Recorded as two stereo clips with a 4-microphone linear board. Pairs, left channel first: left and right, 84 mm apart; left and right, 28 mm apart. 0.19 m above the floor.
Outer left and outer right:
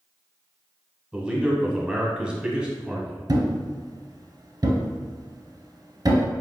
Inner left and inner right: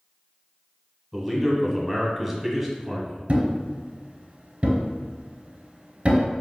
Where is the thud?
55° right (ahead or behind), 0.9 m.